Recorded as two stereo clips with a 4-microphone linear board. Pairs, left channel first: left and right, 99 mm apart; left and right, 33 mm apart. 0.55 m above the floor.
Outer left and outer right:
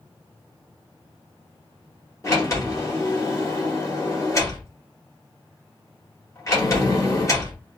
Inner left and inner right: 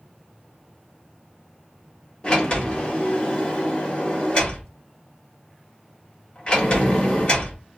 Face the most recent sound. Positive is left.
turn(degrees=35)  # may be behind; listen again after turning